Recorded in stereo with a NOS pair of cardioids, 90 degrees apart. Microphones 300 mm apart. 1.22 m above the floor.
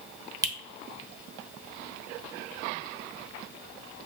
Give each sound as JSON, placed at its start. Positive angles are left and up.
{"t": 0.4, "sound": "a finger snap", "azimuth_deg": -10, "distance_m": 1.1}